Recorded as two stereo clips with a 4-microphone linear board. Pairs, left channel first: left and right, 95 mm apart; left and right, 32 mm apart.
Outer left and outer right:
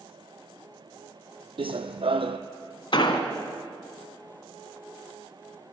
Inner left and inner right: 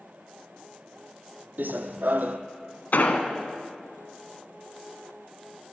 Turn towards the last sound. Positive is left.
turn(degrees=60)  # may be behind; listen again after turning